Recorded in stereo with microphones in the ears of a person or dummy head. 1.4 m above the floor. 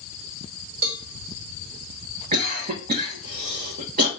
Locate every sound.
0.8 s a cowbell: 65° right (ahead or behind), 0.9 m
2.3 s a cough: 40° right (ahead or behind), 1.0 m